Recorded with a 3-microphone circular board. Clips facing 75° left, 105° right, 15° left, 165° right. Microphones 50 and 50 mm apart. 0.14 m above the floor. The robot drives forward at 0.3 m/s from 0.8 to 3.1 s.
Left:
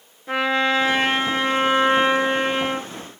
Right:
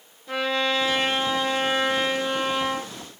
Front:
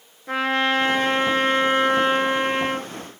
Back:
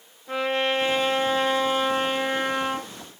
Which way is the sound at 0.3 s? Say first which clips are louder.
Left 4 dB, front 3 dB; 35° left.